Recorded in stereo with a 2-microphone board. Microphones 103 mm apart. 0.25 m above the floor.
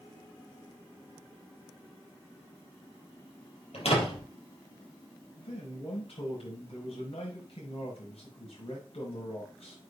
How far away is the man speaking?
About 5 m.